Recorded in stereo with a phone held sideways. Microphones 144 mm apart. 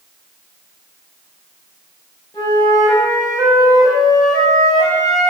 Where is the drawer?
I don't hear a drawer.